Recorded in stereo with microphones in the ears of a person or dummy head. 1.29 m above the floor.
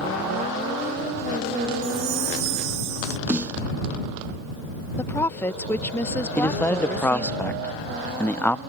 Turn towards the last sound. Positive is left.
turn(degrees=10)  # may be behind; listen again after turning